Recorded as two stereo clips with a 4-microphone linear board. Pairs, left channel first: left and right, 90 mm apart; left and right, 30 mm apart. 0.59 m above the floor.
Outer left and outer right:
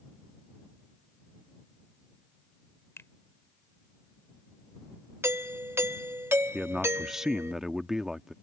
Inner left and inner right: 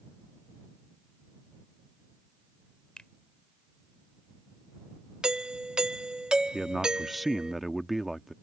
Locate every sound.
3.0 s a finger snap: 30° left (ahead or behind)
5.2 s a doorbell: 30° right (ahead or behind)
6.5 s a man speaking: 5° right (ahead or behind)